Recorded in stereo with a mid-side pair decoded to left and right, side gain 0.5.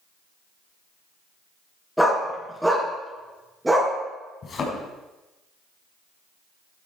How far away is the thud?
About 5.5 m.